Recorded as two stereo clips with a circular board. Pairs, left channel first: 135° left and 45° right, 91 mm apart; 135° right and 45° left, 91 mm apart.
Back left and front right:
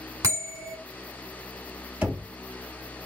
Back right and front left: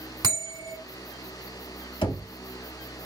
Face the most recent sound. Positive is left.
turn(degrees=-120)